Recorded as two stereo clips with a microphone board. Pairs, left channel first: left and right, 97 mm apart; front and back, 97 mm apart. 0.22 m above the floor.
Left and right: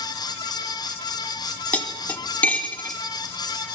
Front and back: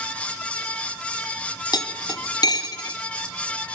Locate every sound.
1.7 s cutlery clinking: 20° left, 1.0 m